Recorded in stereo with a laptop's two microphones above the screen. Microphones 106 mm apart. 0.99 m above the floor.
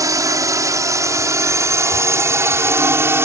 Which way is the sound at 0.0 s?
35° right (ahead or behind).